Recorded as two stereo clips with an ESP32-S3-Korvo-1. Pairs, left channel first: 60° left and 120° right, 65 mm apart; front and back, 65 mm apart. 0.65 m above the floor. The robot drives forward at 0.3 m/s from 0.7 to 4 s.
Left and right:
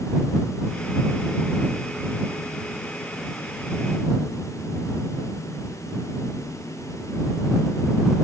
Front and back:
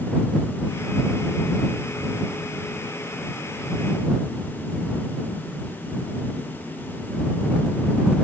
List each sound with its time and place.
Only background noise.